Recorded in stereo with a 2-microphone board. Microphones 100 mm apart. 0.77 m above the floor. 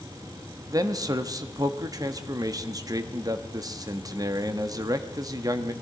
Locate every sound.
0.7 s a man speaking: 40° right (ahead or behind), 1.0 m